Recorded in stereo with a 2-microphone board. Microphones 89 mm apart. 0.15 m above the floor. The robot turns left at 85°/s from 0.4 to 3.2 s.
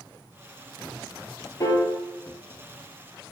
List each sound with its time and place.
1.6 s a piano: 40° left (ahead or behind), 0.6 m; by 1.9 s 20° left (ahead or behind), 0.6 m